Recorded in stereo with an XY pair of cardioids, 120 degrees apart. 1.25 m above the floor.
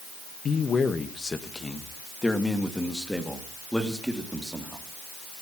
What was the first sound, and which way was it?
A man speaking, 40° left.